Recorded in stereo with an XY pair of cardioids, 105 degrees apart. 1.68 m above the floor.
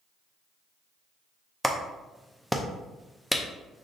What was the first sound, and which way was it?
A clap, straight ahead.